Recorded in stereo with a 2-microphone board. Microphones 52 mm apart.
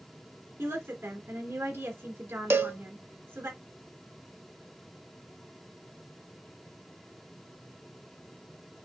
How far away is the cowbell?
About 0.5 m.